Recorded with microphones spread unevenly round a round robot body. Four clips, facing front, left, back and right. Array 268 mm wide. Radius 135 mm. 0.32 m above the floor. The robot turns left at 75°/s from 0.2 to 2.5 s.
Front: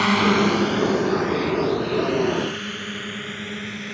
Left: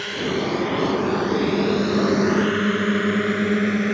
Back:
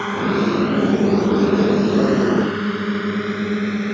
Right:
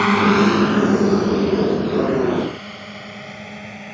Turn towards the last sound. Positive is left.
turn(degrees=125)